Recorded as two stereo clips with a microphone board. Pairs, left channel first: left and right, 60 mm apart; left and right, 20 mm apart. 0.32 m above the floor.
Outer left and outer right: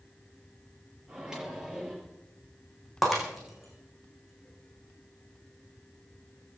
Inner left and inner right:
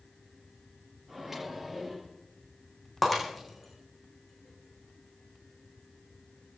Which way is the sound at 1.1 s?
10° right (ahead or behind).